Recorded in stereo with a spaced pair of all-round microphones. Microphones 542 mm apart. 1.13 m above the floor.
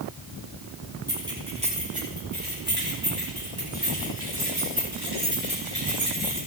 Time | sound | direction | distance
1.1 | keys jangling | 5° right (ahead or behind) | 8 m